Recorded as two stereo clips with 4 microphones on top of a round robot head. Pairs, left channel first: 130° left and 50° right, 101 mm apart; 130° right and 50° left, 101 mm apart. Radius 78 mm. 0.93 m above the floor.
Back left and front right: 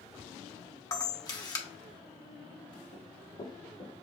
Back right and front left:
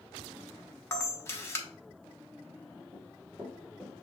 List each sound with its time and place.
0.9 s a camera shutter: 170° left, 1.3 m
2.9 s running footsteps: 150° left, 2 m; by 4.0 s 145° left, 3.5 m